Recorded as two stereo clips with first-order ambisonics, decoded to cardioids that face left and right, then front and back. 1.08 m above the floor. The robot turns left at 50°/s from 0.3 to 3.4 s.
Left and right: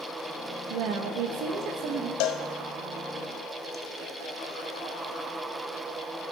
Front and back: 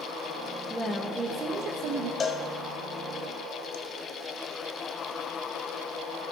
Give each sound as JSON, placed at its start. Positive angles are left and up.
{"t": 0.7, "sound": "a woman speaking", "azimuth_deg": -80, "distance_m": 1.0}
{"t": 2.2, "sound": "a cowbell", "azimuth_deg": 70, "distance_m": 0.7}